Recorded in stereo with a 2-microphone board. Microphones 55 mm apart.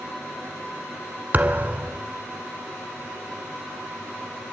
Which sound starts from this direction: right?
A thud, at 1.3 s.